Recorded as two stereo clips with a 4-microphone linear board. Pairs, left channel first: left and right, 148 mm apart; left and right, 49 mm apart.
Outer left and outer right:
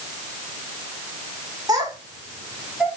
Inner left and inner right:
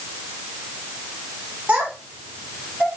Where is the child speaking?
25° right (ahead or behind), 2.0 m; by 2.9 s 5° right (ahead or behind), 1.7 m.